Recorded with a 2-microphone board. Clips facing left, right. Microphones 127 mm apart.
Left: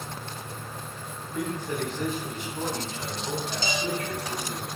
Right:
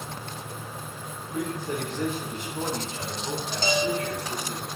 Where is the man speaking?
25° right (ahead or behind), 1.2 m.